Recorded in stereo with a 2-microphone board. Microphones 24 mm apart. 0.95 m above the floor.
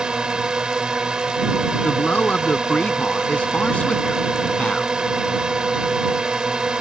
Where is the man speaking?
70° left (ahead or behind).